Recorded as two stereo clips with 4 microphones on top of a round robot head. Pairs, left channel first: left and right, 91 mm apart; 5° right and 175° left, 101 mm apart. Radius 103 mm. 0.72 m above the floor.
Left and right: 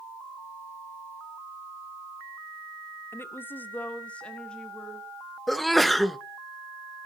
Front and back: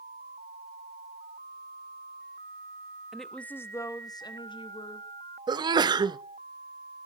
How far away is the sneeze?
About 0.9 m.